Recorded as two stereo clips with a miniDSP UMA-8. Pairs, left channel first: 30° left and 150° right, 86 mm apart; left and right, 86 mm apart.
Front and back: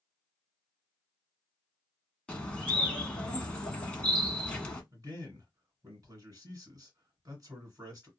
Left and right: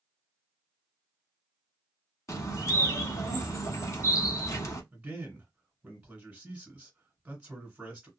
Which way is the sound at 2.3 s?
100° left.